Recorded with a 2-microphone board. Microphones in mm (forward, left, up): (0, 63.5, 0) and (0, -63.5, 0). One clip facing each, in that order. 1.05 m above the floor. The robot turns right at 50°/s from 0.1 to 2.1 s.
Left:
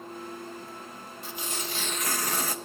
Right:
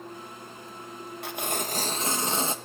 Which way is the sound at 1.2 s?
70° right.